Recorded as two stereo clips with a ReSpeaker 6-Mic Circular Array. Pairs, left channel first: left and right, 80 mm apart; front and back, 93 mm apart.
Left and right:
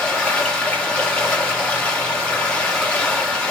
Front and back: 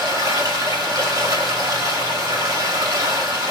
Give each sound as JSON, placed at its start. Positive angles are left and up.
{"t": 0.0, "sound": "running water", "azimuth_deg": 160, "distance_m": 1.0}